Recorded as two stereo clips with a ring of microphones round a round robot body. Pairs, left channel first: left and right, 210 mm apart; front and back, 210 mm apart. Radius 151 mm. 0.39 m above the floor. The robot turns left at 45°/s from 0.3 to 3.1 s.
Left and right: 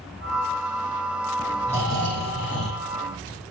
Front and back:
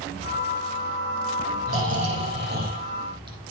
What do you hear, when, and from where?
1.7 s snoring: 175° left, 6.5 m; by 3.5 s 110° left, 6.5 m